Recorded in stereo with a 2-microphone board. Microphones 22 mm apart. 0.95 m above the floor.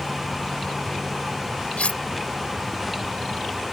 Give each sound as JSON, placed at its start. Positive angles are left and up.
{"t": 1.8, "sound": "cutlery clinking", "side_deg": 75}